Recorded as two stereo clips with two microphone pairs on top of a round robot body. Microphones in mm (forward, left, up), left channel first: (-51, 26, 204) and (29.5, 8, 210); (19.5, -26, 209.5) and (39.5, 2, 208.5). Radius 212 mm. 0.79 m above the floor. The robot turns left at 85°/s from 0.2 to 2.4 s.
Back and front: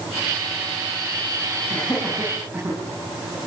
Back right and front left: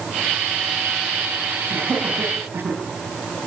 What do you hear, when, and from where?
1.7 s laughter: 115° left, 9 m; by 2.8 s 55° left, 9 m